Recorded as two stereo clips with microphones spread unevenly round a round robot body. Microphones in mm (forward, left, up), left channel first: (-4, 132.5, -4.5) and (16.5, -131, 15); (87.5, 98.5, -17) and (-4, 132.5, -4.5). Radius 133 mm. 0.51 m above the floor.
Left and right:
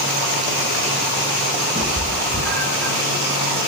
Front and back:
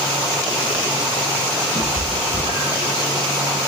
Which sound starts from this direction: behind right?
A cat meowing, at 1.8 s.